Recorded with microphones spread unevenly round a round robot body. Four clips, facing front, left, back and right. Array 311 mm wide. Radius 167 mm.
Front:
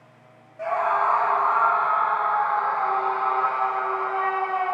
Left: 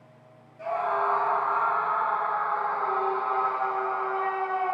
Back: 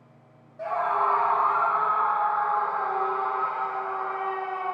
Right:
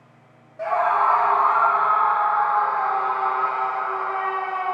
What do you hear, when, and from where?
0.6 s a scream: 85° right, 1.9 m; by 4.7 s 170° left, 6 m